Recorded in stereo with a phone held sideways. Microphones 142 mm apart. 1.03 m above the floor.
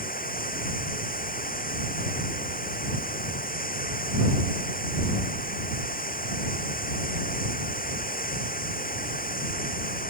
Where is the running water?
85° left.